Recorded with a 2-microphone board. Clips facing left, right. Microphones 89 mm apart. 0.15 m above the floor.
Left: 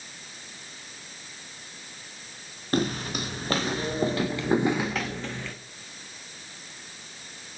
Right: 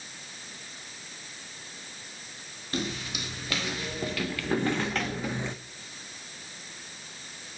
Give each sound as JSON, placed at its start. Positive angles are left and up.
{"t": 2.7, "sound": "footsteps", "side_deg": 50, "distance_m": 1.9}